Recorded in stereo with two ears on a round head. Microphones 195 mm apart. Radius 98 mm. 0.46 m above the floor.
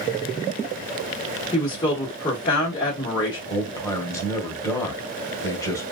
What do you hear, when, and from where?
1.5 s a woman speaking: 20° left (ahead or behind), 1.1 m
3.5 s a man speaking: 15° left (ahead or behind), 1.1 m